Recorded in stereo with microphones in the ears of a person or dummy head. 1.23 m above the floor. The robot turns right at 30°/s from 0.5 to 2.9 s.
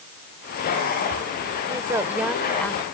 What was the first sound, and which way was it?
A woman speaking, 20° right.